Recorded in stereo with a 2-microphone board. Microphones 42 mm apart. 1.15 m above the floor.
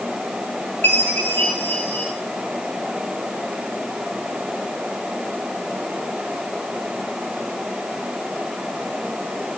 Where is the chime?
60° left (ahead or behind), 5 m.